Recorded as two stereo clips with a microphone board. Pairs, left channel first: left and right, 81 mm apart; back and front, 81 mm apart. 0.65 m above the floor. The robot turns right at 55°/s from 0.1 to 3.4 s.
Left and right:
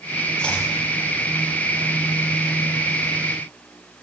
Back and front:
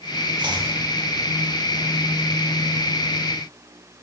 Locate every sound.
0.4 s chopping: 10° left, 1.9 m; by 0.7 s 30° left, 1.9 m